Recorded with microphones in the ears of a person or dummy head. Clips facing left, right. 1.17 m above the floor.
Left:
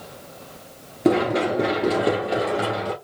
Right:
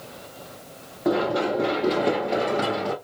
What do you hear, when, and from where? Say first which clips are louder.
1.1 s running footsteps: left 3 dB; 30° left (ahead or behind), 1.3 m; by 2.9 s centre (ahead or behind), 1.4 m